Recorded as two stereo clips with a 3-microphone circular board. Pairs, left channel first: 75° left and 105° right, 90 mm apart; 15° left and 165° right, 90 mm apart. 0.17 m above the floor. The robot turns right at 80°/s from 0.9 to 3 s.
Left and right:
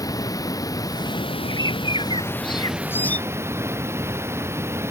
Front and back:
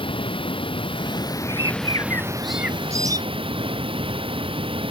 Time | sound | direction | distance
0.0 | running water | 25° left | ?
1.5 | a bird | 25° left | ?